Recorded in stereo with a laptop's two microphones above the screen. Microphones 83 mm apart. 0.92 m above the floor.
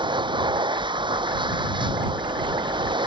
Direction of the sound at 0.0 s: 75° right (ahead or behind).